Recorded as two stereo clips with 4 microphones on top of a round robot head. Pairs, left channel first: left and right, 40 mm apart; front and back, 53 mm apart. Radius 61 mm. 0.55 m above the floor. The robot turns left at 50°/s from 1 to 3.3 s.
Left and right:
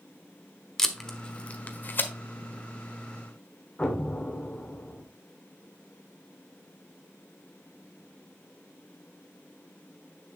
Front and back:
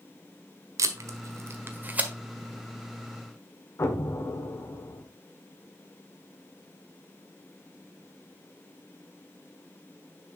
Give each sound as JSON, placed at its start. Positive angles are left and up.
{"t": 0.8, "sound": "tape being pulled", "azimuth_deg": 170, "distance_m": 1.4}
{"t": 3.8, "sound": "an explosion", "azimuth_deg": 25, "distance_m": 1.6}